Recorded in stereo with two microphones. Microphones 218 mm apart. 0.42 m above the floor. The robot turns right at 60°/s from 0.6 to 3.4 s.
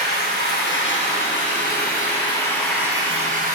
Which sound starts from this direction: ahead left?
Running water, at 0.0 s.